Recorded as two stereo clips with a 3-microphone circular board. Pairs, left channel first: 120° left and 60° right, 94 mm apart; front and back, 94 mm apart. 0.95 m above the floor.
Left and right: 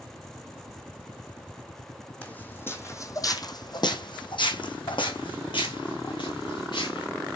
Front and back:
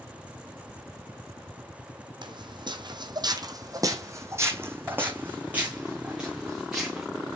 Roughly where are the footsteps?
Behind.